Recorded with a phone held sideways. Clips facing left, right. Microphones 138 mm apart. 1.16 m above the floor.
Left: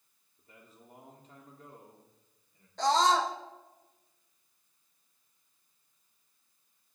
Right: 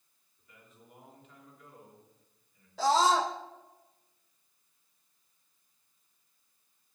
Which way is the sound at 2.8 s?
5° right (ahead or behind).